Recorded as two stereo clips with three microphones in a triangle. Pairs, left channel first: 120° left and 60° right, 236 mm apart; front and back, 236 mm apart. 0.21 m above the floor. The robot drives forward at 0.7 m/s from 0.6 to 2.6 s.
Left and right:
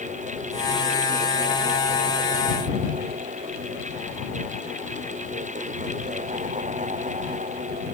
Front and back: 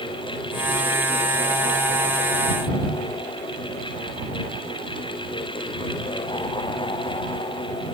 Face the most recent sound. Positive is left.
No sound to turn to.